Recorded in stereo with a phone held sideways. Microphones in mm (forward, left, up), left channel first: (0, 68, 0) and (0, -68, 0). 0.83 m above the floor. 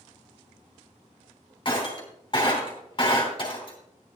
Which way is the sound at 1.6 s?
35° left (ahead or behind).